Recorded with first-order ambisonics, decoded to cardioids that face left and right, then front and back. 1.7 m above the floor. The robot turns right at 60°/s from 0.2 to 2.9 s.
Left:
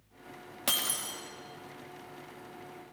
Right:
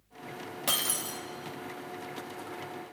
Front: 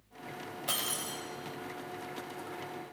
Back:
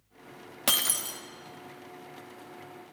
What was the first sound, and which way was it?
Breaking glass, 175° left.